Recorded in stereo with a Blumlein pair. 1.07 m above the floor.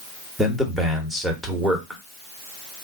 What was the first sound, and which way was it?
A man speaking, straight ahead.